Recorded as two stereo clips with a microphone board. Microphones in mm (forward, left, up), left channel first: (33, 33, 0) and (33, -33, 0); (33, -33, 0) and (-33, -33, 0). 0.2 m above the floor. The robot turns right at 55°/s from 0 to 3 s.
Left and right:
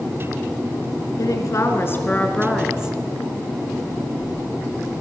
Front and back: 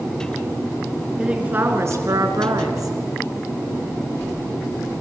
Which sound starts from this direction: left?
A woman speaking, at 1.2 s.